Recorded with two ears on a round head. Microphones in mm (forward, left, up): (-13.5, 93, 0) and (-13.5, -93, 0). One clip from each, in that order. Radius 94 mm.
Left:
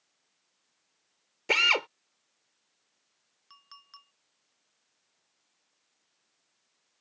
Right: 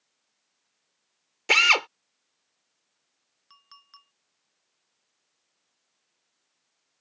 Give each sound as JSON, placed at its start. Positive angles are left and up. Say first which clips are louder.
{"t": 1.5, "sound": "a drill", "louder": "right 5 dB", "side_deg": -40}
{"t": 3.5, "sound": "a clink", "louder": "even", "side_deg": 0}